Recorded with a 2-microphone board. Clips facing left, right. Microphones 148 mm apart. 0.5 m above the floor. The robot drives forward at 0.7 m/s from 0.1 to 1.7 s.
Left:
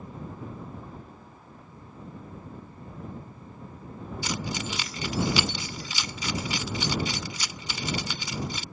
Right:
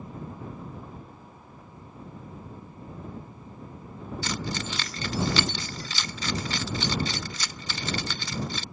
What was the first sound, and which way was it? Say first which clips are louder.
Keys jangling: even; 10° left (ahead or behind).